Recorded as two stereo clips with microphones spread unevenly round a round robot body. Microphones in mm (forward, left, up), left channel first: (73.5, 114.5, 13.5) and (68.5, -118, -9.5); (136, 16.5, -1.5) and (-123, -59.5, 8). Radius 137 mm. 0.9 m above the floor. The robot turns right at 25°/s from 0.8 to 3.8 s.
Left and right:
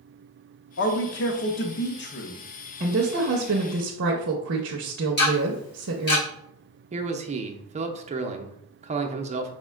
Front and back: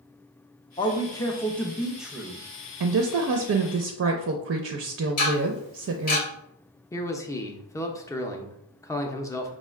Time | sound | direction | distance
0.8 | a man speaking | 75° left | 0.6 m
2.8 | a woman speaking | 145° right | 0.5 m
5.2 | ticking | 45° left | 2 m
6.9 | a man speaking | 55° right | 0.6 m